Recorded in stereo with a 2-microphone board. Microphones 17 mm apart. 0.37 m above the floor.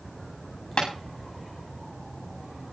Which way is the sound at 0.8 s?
60° left (ahead or behind).